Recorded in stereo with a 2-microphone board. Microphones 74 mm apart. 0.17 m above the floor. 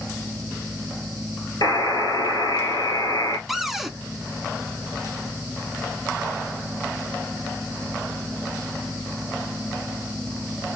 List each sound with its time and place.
1.6 s a buzzer: 70° left (ahead or behind), 1.8 m
3.5 s a cupboard door: centre (ahead or behind), 0.6 m